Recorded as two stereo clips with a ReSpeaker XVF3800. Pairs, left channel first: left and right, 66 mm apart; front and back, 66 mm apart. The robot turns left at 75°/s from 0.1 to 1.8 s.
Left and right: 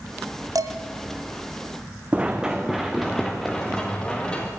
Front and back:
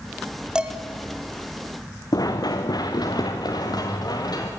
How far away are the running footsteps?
About 1.9 m.